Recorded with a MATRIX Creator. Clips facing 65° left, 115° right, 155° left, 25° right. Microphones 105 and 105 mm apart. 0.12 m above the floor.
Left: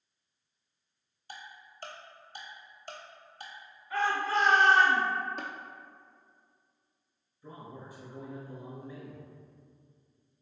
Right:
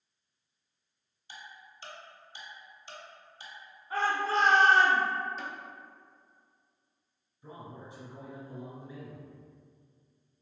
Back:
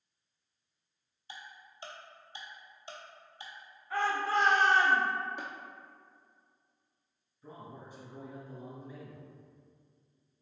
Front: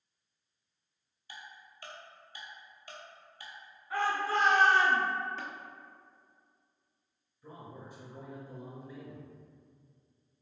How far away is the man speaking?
About 1.4 m.